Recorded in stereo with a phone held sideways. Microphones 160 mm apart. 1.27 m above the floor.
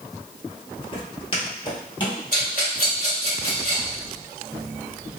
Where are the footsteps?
35° left (ahead or behind), 1.4 m; by 2.2 s 30° left (ahead or behind), 1.9 m.